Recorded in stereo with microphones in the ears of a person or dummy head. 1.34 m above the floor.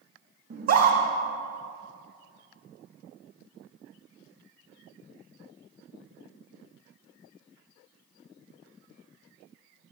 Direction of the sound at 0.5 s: 55° right (ahead or behind).